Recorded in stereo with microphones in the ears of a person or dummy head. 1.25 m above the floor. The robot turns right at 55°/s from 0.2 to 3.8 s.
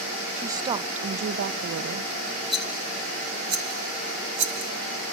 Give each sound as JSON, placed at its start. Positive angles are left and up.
{"t": 0.4, "sound": "a woman speaking", "azimuth_deg": 180, "distance_m": 0.7}
{"t": 2.5, "sound": "a rattle", "side_deg": 10, "distance_m": 1.9}